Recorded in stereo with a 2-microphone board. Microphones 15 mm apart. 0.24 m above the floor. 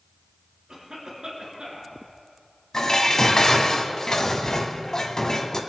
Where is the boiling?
No boiling in this recording.